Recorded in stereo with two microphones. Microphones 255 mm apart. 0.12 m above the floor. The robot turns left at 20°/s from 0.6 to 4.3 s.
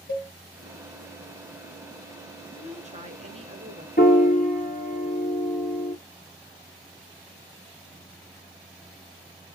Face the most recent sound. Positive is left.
turn(degrees=30)  # may be behind; listen again after turning